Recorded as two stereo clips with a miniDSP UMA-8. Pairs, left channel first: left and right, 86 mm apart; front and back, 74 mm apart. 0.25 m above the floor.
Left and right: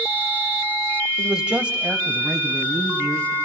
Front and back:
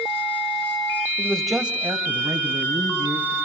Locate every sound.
1.2 s a man speaking: 20° right, 1.1 m; by 3.3 s 165° right, 3 m